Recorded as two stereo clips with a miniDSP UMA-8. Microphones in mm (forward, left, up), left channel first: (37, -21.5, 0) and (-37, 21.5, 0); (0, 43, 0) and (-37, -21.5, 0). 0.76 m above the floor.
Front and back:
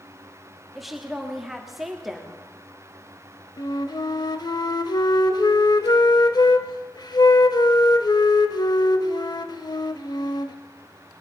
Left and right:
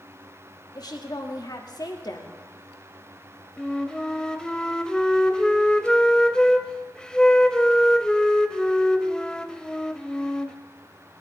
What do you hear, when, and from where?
0.8 s a woman speaking: 65° left, 1.5 m
3.6 s a flute: 15° right, 0.7 m